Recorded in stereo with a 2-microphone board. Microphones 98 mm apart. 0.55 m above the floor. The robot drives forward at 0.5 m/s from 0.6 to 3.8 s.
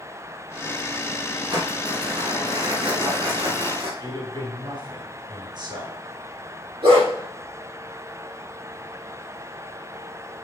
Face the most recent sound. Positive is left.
turn(degrees=-75)  # may be behind; listen again after turning